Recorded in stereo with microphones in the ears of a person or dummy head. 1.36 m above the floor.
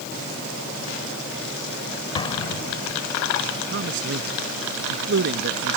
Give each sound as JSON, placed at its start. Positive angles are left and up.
{"t": 2.1, "sound": "an explosion", "side_deg": 30}
{"t": 3.7, "sound": "a man speaking", "side_deg": -65}